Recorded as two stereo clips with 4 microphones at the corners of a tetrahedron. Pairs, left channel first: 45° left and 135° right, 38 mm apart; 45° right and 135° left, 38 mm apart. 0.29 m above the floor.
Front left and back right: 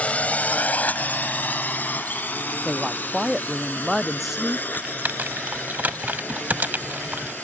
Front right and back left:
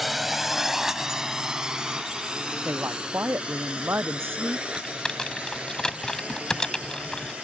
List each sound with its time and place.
0.0 s a drone: 50° left; by 7.5 s 80° left
2.6 s a woman speaking: 140° left
4.7 s typing on a keyboard: 110° right